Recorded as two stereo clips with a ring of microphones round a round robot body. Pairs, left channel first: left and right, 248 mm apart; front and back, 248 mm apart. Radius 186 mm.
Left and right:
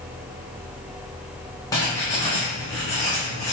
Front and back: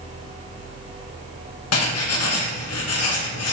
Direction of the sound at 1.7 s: 10° left.